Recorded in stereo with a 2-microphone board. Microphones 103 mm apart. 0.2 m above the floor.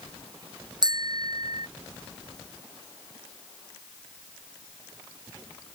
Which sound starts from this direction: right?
A bicycle bell, at 0.8 s.